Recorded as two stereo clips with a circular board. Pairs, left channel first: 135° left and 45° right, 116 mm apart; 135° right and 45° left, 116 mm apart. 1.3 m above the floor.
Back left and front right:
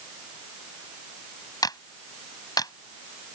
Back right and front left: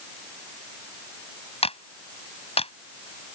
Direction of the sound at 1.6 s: 170° right.